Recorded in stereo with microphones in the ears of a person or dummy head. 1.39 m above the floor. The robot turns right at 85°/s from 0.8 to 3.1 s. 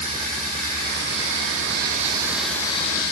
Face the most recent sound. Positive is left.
turn(degrees=55)